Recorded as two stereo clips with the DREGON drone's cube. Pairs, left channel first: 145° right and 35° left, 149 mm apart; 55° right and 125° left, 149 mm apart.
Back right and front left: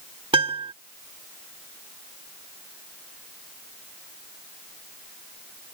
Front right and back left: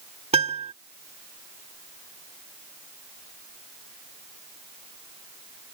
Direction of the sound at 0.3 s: 85° left.